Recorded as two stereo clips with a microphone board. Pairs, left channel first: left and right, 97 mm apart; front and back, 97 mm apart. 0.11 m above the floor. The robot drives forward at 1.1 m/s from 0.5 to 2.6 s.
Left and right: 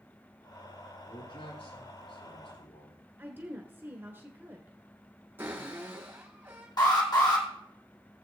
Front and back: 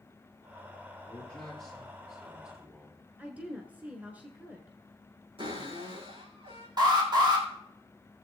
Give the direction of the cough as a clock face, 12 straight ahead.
I don't hear a cough.